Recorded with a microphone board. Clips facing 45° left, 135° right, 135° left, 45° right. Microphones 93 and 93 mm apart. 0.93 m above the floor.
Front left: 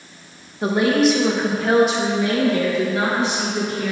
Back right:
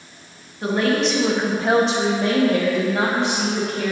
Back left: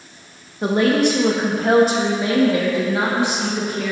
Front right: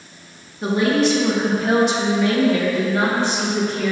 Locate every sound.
0.6 s a woman speaking: 110° left, 1.5 m; by 3.9 s 145° right, 3 m